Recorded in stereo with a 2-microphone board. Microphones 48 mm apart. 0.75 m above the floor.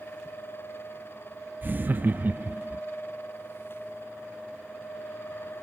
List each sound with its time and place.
1.6 s laughter: 40° right (ahead or behind)